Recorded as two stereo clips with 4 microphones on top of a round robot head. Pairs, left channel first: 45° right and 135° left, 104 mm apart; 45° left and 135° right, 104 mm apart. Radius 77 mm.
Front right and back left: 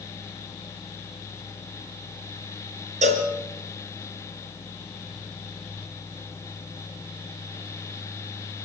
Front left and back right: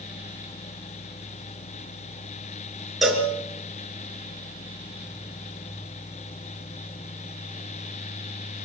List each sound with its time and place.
3.0 s a cowbell: 135° left, 3.5 m